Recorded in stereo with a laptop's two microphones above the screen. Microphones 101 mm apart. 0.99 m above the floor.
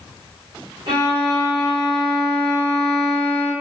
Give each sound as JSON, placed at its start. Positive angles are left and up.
{"t": 0.9, "sound": "a violin", "side_deg": -50, "distance_m": 1.0}